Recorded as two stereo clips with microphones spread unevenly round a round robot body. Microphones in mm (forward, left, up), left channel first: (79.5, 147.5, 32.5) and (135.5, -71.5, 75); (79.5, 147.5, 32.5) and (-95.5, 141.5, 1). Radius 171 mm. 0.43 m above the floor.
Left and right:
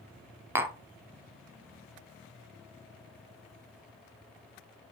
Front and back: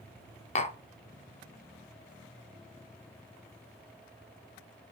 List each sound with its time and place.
0.6 s tapping: 15° left, 0.6 m